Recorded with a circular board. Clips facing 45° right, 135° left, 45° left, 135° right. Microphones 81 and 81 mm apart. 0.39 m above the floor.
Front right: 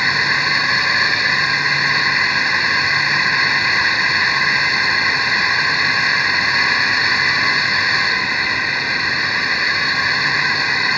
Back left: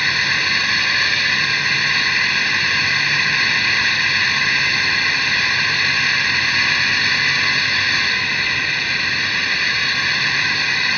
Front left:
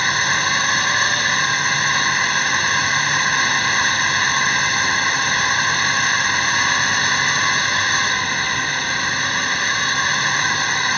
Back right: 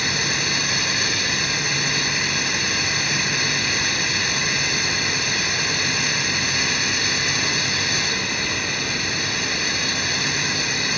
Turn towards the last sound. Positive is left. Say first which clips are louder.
# front right 3 dB, front left 6 dB
turn(degrees=20)